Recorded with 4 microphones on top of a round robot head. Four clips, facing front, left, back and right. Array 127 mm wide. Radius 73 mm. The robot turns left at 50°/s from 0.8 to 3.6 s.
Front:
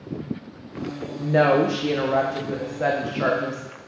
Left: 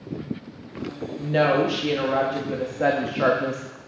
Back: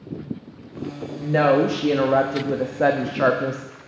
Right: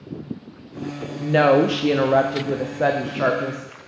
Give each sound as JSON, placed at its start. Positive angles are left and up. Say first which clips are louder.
{"t": 1.2, "sound": "a woman speaking", "louder": "right 4 dB, even", "azimuth_deg": -75, "distance_m": 0.6}